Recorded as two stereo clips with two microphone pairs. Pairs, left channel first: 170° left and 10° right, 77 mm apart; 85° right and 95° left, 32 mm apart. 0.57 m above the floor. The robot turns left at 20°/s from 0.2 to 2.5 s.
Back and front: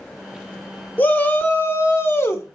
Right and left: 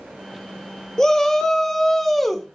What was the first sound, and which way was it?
A shout, 135° right.